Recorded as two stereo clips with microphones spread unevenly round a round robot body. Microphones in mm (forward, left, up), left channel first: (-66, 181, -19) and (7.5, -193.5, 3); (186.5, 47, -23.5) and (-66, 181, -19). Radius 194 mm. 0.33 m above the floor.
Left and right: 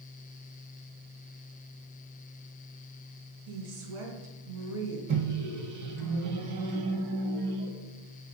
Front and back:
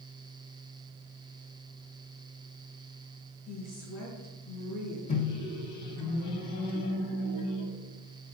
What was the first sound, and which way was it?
A woman speaking, 80° right.